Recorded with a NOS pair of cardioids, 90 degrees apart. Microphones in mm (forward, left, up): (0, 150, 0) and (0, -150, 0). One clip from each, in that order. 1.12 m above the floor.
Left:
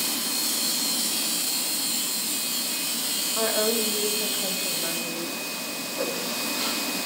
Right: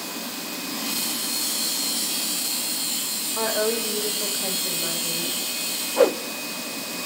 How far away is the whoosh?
About 1.1 m.